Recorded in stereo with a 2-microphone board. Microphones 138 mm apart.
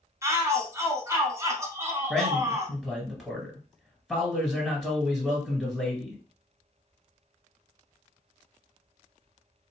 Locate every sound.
0.2 s a shout: 20° right (ahead or behind), 1.1 m
2.1 s a man speaking: centre (ahead or behind), 2.0 m